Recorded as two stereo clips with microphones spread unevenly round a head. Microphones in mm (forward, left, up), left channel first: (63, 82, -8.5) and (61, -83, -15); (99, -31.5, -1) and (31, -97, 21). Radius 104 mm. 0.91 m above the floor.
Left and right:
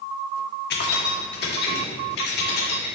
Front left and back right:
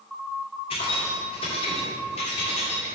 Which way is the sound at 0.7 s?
75° left.